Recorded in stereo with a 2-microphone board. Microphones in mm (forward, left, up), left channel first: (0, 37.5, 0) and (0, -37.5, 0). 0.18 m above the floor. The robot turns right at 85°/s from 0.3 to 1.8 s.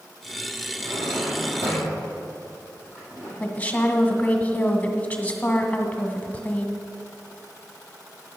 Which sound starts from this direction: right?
A drawer, at 0.8 s.